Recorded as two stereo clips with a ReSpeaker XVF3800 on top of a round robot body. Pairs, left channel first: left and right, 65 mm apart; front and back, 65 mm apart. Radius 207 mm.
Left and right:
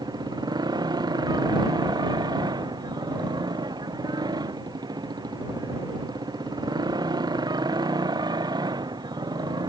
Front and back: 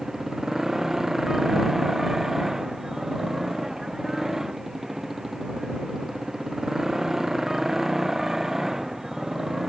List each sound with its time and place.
0.0 s a motorcycle: 95° right